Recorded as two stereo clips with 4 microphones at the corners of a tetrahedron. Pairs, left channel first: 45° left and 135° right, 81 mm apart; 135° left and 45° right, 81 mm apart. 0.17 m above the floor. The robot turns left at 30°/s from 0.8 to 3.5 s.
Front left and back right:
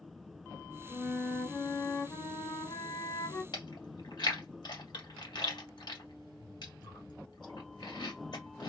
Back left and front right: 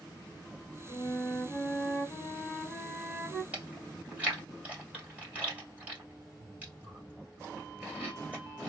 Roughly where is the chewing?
Ahead left.